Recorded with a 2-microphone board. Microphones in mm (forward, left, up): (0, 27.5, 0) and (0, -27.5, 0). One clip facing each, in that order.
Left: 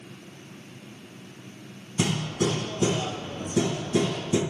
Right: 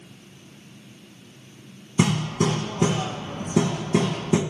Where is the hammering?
60° right (ahead or behind), 2.5 m.